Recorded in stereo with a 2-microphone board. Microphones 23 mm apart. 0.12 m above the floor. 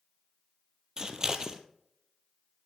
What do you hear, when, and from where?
1.0 s scissors: 30° right (ahead or behind), 1.5 m